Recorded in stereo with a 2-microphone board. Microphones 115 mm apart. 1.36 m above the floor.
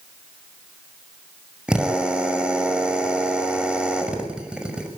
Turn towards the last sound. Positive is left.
turn(degrees=-10)  # may be behind; listen again after turning